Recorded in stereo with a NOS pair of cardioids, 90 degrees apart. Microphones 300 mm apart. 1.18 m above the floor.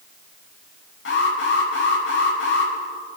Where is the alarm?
40° left, 7.5 m.